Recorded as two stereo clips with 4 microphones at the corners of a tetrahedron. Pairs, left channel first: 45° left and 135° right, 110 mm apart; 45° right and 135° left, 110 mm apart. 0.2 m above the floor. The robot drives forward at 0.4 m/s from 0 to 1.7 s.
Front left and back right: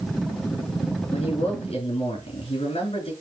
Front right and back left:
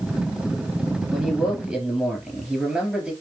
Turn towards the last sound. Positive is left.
turn(degrees=55)